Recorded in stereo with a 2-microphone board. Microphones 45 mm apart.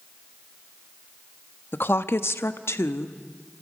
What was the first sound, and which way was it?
A woman speaking, 50° left (ahead or behind).